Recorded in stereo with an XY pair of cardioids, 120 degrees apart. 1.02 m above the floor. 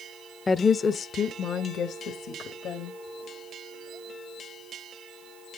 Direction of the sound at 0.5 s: 25° left.